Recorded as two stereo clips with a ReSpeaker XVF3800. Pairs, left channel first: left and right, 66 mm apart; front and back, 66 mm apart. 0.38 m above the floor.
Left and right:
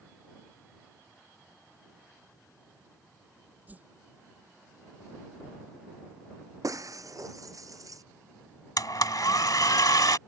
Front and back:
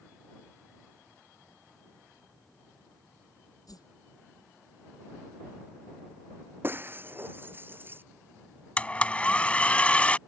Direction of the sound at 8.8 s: 70° left.